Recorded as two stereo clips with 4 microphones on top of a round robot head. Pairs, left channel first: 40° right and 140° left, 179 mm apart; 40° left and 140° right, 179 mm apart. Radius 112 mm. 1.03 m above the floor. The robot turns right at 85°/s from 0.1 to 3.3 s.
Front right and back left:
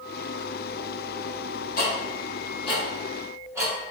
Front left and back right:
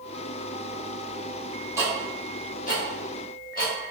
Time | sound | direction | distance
1.8 | ticking | 65° right | 1.1 m